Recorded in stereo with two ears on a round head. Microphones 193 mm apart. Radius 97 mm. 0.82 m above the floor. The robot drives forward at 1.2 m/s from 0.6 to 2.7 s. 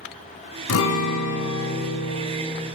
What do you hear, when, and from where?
0.7 s a guitar: 65° left (ahead or behind), 1.3 m; by 2.7 s 30° left (ahead or behind), 2 m